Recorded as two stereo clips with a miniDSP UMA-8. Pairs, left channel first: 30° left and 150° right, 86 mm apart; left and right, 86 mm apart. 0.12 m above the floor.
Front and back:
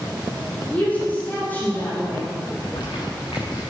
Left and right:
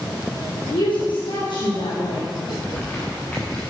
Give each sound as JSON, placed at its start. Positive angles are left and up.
{"t": 0.7, "sound": "a woman speaking", "azimuth_deg": 100, "distance_m": 5.0}
{"t": 2.5, "sound": "crumpling", "azimuth_deg": 25, "distance_m": 6.0}